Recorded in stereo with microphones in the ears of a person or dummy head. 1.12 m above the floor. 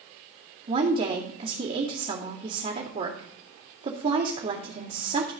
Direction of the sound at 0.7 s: 45° right (ahead or behind).